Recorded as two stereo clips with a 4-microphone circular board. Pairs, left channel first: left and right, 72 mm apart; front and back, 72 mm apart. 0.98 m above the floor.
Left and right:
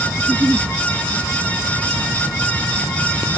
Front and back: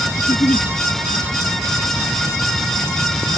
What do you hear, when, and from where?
0.2 s a giggle: 20° right